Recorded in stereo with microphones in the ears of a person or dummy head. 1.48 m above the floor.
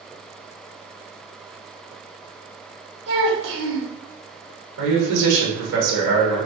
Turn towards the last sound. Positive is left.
turn(degrees=-80)